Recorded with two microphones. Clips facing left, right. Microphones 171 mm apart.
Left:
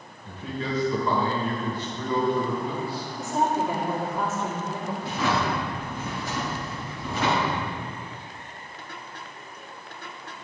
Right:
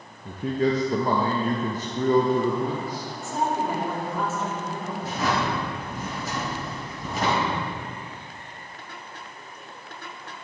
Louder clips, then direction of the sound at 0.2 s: Right 8 dB; 40° right (ahead or behind).